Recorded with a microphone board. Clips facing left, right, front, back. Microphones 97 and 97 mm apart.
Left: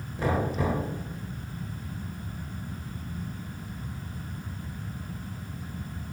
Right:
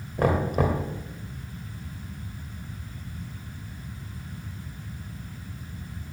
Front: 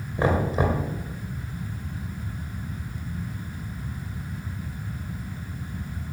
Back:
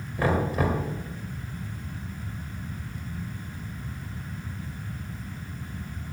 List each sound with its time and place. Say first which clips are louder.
0.2 s knocking: right 4 dB, front 2 dB; 70° right, 2.5 m